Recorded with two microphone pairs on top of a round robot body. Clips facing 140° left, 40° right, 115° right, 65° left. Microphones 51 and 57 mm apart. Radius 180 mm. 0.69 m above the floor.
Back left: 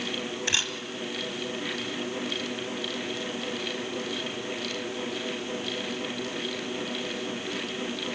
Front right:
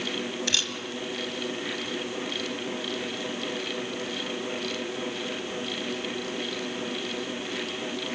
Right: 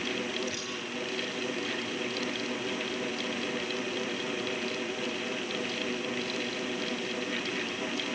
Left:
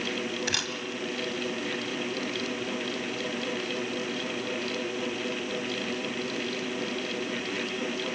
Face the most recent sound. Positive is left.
turn(degrees=75)